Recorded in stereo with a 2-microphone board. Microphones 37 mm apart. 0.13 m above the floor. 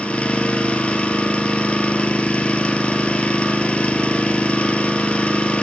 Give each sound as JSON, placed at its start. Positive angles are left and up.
{"t": 0.0, "sound": "an engine running", "side_deg": 35, "distance_m": 0.9}